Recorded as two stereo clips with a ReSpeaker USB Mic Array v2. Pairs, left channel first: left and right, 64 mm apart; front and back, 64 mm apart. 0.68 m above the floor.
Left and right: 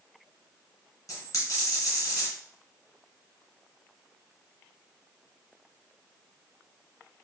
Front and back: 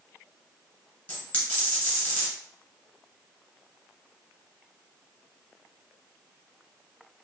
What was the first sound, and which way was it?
A dropped coin, 60° left.